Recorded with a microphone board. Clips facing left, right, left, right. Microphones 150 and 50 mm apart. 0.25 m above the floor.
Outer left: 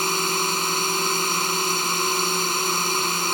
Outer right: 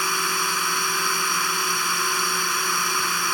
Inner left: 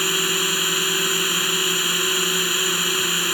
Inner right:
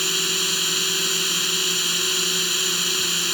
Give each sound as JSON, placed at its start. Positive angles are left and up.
{"t": 0.0, "sound": "a drone", "side_deg": 25}